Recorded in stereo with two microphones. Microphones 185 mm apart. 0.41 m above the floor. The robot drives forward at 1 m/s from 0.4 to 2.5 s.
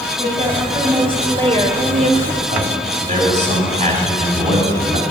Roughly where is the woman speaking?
Right.